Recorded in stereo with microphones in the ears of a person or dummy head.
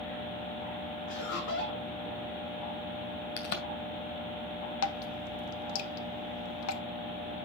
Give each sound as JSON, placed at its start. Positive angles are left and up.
{"t": 1.1, "sound": "laughter", "side_deg": 60, "distance_m": 3.5}
{"t": 3.4, "sound": "a crack", "side_deg": 55, "distance_m": 1.9}
{"t": 4.8, "sound": "dripping", "side_deg": 80, "distance_m": 1.0}